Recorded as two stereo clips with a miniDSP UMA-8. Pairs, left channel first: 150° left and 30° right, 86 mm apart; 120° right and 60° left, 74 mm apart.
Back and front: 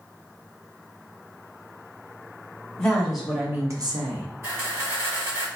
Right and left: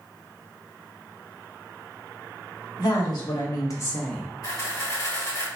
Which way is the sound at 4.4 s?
85° right.